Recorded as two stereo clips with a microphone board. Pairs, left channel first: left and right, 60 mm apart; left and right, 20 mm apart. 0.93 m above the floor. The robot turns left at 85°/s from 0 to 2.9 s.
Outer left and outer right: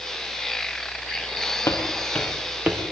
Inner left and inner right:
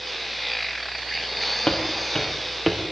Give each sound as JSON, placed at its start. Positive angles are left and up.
{"t": 1.7, "sound": "footsteps", "side_deg": 55, "distance_m": 5.5}